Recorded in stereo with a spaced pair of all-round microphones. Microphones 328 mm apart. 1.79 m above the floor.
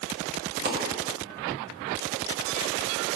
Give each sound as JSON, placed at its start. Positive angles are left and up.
{"t": 0.7, "sound": "a dropped coin", "side_deg": -30, "distance_m": 1.3}